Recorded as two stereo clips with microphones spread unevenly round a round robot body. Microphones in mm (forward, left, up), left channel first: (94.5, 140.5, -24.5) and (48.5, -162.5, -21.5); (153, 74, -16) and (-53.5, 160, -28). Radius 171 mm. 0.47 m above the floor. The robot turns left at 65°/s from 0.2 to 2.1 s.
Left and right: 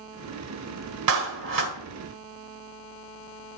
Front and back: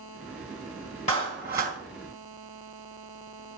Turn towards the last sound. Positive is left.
turn(degrees=-160)